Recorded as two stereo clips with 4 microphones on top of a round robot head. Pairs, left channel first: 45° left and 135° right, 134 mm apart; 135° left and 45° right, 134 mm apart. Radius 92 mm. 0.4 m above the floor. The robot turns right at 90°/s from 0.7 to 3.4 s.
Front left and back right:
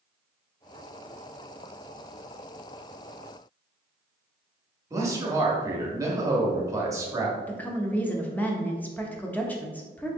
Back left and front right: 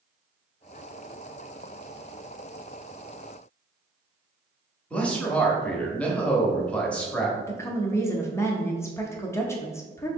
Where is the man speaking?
160° right, 1.0 m.